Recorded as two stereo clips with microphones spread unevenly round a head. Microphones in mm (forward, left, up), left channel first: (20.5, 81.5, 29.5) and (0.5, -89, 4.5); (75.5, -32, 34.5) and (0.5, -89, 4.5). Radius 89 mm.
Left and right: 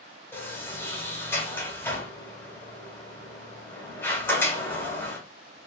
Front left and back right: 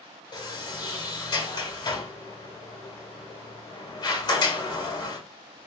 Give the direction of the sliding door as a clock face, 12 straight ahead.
12 o'clock.